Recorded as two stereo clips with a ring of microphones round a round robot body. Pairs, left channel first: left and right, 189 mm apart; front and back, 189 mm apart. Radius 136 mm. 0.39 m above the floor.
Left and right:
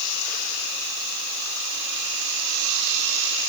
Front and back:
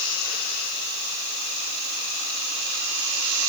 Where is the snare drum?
I don't hear a snare drum.